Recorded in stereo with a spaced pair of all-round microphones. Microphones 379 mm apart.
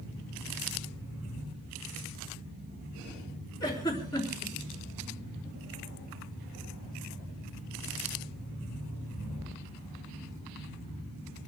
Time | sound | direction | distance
3.6 | a giggle | 10° left (ahead or behind) | 4.5 m